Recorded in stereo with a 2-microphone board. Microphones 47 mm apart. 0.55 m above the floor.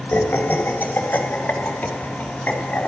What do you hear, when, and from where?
0.1 s laughter: 45° left (ahead or behind), 3.5 m; by 2.9 s 30° left (ahead or behind), 5.5 m